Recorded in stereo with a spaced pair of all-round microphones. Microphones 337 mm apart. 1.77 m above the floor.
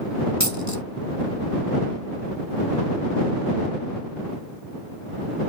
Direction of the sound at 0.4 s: 55° right (ahead or behind).